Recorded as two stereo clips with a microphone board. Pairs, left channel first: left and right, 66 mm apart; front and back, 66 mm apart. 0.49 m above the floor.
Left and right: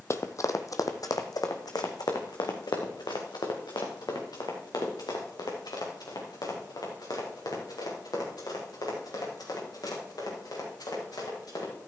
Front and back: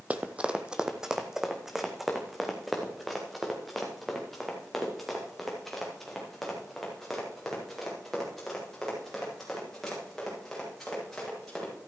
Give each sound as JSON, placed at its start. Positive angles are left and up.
{"t": 0.1, "sound": "running footsteps", "azimuth_deg": 120, "distance_m": 0.7}